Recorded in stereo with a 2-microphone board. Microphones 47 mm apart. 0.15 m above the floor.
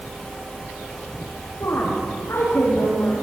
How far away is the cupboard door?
I don't hear a cupboard door.